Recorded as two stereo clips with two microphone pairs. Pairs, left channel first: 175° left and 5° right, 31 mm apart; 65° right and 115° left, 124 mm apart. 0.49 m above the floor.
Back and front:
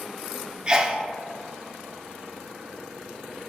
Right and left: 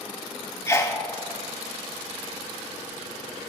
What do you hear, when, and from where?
0.7 s a sneeze: 30° right, 0.9 m